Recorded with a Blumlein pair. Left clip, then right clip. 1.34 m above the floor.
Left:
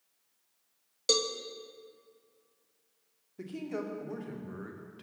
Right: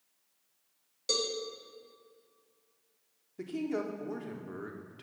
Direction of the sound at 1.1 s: 20° left.